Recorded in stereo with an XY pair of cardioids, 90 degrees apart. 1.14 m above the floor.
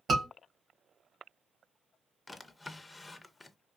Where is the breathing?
No breathing in this recording.